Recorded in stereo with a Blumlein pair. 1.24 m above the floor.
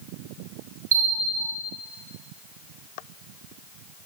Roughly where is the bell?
Ahead right.